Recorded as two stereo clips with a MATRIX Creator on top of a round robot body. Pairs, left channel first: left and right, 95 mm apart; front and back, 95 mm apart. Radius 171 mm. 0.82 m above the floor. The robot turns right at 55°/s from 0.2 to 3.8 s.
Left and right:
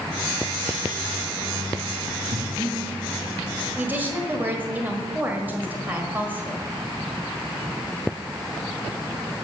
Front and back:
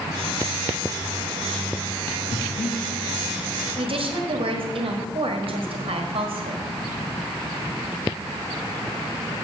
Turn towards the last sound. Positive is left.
turn(degrees=-160)